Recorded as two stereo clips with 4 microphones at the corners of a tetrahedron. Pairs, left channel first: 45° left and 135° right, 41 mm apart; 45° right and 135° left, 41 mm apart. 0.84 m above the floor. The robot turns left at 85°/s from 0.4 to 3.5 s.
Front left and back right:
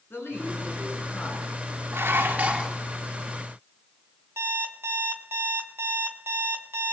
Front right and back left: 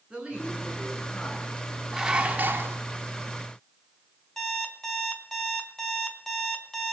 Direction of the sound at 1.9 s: 135° right.